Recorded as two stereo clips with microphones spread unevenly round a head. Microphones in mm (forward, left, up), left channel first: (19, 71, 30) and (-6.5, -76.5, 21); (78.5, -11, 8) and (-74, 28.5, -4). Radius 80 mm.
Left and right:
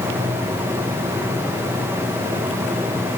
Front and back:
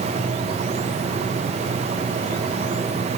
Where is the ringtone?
I don't hear a ringtone.